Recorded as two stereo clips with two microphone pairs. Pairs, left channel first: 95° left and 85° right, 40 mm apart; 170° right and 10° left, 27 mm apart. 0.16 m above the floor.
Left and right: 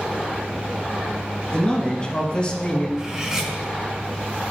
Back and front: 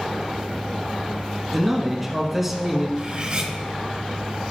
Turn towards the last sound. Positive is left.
turn(degrees=-20)